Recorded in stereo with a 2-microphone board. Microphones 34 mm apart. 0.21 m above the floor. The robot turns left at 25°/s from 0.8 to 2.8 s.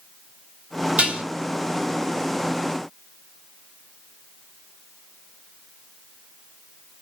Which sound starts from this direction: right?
Dishes clattering, at 1.0 s.